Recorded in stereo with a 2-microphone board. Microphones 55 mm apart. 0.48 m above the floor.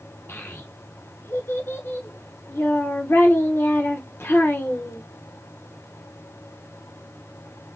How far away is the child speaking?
About 0.6 m.